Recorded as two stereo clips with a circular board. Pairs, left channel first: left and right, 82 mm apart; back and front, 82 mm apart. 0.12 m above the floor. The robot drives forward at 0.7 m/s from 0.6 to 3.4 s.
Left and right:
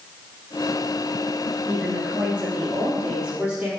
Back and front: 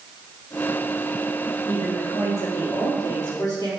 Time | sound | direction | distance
1.7 | a woman speaking | 155° right | 2.5 m